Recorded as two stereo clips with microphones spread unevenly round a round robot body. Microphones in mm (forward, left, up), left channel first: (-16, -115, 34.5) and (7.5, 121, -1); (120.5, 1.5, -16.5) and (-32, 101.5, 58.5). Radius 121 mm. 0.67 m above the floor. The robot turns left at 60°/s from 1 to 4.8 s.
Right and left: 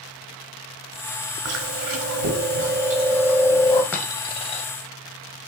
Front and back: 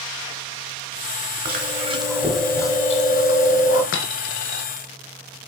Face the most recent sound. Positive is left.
turn(degrees=-80)